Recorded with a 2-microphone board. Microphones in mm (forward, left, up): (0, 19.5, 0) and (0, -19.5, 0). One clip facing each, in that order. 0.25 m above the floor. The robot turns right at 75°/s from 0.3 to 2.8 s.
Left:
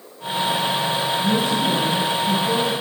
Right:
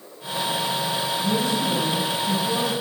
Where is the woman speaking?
80° left, 1.7 m; by 2.7 s 165° right, 1.7 m.